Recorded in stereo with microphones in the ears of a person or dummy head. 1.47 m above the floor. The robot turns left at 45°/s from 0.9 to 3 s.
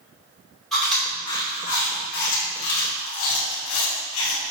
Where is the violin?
No violin in this recording.